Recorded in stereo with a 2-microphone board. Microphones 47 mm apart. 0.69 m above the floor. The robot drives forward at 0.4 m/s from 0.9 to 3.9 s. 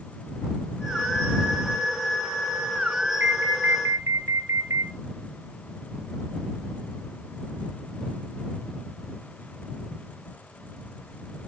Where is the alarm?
75° right (ahead or behind), 1.1 m; by 4.9 s 80° right, 1.1 m.